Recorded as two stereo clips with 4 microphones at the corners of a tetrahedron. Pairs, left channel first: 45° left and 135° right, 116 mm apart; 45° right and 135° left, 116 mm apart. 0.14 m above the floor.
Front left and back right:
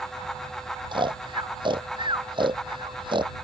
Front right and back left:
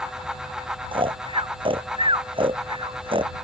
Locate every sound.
0.9 s snoring: straight behind